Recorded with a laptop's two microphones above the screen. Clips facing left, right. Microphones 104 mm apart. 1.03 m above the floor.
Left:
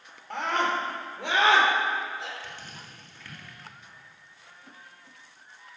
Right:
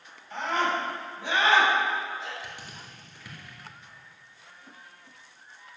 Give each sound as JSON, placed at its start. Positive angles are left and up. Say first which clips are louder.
{"t": 0.3, "sound": "a scream", "louder": "even", "side_deg": 70, "distance_m": 3.5}
{"t": 2.4, "sound": "crushing", "louder": "even", "side_deg": -15, "distance_m": 1.9}